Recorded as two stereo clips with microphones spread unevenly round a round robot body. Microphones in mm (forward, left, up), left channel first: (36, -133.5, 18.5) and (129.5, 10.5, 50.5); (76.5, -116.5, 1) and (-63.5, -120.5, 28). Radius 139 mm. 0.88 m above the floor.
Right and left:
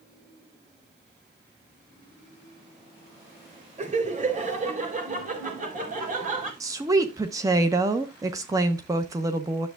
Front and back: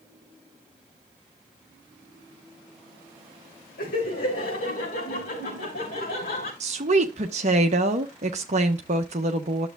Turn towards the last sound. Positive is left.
turn(degrees=135)